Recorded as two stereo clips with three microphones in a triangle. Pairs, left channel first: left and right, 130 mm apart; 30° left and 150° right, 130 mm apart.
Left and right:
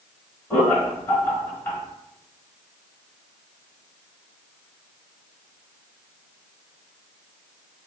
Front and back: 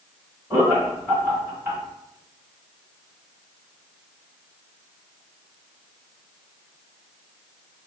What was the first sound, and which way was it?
Laughter, 150° left.